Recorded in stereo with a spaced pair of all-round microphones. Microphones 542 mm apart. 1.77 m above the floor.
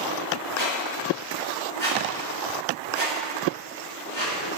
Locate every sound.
0.6 s a squeak: 55° left (ahead or behind), 5.5 m